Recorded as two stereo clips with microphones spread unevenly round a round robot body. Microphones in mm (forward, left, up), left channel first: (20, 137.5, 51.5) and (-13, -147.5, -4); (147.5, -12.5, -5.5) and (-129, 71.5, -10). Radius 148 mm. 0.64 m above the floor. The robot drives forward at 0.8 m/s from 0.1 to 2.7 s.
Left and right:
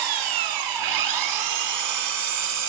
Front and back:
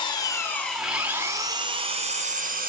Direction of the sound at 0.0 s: 95° right.